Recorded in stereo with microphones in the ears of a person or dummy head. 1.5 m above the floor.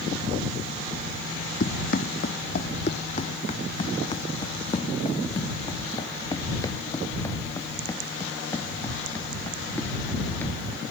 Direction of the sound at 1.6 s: 55° left (ahead or behind).